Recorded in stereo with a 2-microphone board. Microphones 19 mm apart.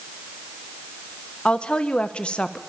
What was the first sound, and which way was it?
A woman speaking, 60° left (ahead or behind).